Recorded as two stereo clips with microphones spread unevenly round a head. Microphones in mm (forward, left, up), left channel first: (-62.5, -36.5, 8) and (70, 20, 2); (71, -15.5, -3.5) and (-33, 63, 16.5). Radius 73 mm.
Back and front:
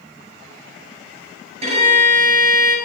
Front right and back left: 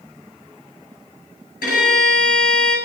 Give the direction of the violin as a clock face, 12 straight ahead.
1 o'clock.